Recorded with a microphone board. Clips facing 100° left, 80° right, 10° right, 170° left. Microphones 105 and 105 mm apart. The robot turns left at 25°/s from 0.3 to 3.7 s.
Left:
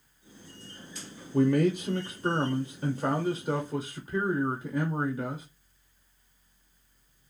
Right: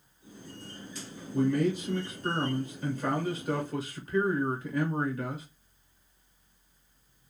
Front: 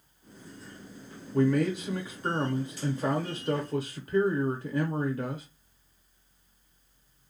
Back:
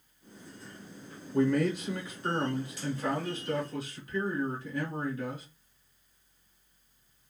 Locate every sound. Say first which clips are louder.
1.3 s a man speaking: left 3 dB, front 1 dB; 85° left, 0.6 m; by 5.5 s 25° left, 0.6 m